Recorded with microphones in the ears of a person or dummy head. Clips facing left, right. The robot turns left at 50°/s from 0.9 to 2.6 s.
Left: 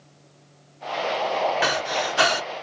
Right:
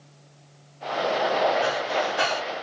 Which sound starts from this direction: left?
Breathing, at 1.6 s.